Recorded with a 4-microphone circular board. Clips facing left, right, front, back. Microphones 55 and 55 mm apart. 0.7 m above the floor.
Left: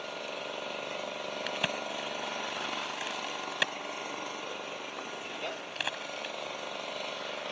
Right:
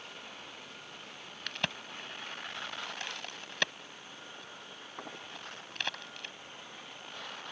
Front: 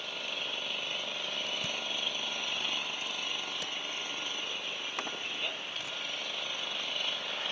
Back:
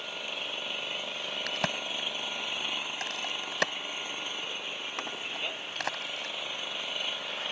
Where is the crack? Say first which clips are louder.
Left 2 dB, back 4 dB; 170° left.